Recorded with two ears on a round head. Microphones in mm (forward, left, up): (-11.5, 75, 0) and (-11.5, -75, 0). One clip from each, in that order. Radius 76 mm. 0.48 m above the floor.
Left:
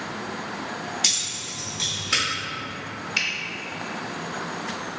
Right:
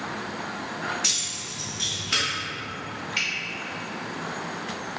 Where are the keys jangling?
25° left (ahead or behind), 1.3 m; by 2.2 s 5° right (ahead or behind), 1.0 m.